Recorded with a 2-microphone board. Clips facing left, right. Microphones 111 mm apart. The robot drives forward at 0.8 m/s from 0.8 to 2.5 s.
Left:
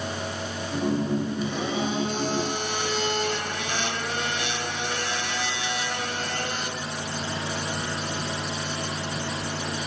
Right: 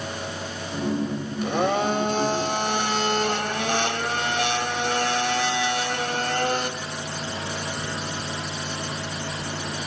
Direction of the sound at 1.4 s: 60° right (ahead or behind).